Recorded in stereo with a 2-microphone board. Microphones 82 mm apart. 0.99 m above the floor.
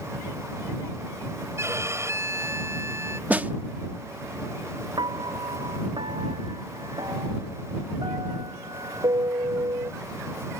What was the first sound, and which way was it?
A violin, 35° right (ahead or behind).